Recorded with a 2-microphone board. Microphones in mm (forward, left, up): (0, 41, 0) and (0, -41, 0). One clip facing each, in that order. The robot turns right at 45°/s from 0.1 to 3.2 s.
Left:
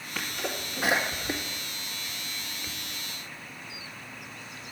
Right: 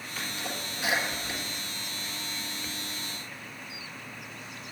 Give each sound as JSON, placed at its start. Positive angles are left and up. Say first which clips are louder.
{"t": 0.1, "sound": "a sneeze", "louder": "left 3 dB", "side_deg": 60, "distance_m": 2.0}